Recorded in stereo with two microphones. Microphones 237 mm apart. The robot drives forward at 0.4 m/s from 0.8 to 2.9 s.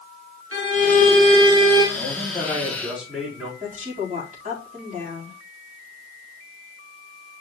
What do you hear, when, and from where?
0.5 s a violin: 80° right, 3 m; by 1.9 s 75° right (ahead or behind), 3 m
1.9 s a man speaking: 5° right (ahead or behind), 4 m
3.6 s a woman speaking: 35° right (ahead or behind), 4.5 m